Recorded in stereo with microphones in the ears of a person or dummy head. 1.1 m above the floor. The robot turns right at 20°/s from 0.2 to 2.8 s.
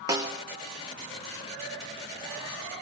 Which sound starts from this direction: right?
A snare drum, at 0.1 s.